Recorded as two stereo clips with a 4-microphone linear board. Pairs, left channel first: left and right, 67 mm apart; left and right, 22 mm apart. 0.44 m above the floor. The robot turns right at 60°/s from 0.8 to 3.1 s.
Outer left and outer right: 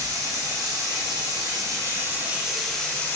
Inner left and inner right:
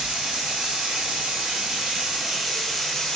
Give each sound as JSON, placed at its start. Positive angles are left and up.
{"t": 0.0, "sound": "running water", "azimuth_deg": -110, "distance_m": 1.0}